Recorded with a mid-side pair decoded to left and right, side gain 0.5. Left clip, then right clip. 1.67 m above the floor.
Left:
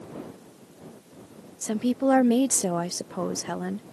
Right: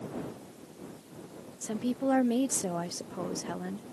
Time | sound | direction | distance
1.6 | a woman speaking | 45° left | ?